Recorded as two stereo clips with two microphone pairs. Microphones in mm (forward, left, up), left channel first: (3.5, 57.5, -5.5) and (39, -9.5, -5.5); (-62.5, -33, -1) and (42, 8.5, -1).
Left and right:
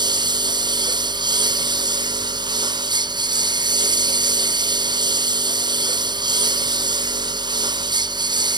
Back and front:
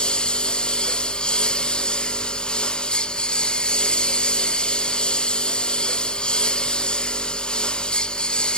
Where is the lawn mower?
75° right.